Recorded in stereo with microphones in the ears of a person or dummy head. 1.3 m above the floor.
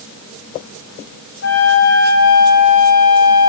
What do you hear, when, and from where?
1.4 s a flute: 60° left (ahead or behind), 2 m